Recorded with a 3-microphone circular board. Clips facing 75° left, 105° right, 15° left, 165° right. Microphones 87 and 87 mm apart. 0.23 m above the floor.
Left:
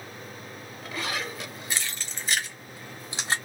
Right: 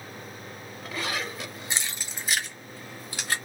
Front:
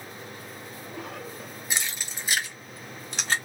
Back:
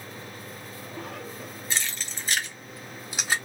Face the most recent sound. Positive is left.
turn(degrees=120)